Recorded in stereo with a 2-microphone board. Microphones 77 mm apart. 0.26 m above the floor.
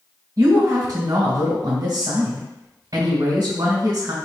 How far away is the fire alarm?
I don't hear a fire alarm.